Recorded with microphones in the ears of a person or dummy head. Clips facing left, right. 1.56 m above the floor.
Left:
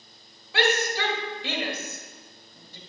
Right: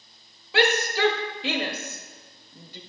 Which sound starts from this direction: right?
A shout, at 0.5 s.